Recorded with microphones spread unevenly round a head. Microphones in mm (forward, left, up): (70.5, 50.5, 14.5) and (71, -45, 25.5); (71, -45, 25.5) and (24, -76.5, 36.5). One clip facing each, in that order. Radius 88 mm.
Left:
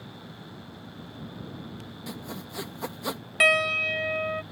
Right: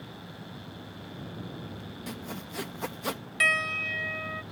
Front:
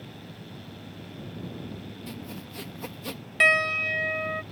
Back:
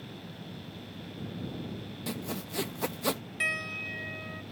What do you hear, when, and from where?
2.1 s sawing: 175° left
3.4 s a piano: 65° left